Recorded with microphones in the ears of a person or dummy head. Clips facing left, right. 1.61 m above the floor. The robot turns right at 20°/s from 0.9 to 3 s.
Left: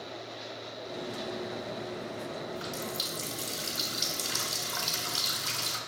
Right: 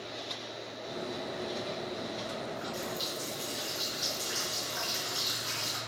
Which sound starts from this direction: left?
A running tap, at 2.5 s.